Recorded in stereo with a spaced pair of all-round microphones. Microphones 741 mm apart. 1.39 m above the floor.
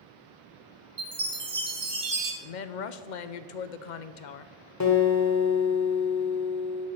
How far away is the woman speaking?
About 0.7 m.